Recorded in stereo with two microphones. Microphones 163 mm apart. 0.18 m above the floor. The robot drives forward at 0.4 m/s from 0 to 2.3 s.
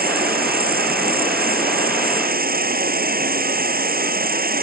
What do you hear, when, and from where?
0.0 s an insect: 70° right (ahead or behind)